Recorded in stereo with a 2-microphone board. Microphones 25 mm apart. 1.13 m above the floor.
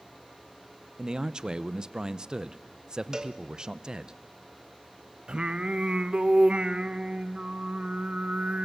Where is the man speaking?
35° right (ahead or behind), 0.8 m.